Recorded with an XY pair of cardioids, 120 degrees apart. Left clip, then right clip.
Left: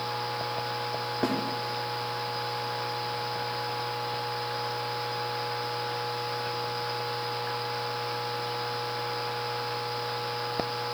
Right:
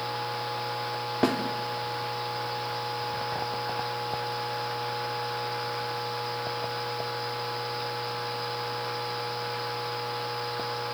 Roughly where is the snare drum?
Ahead right.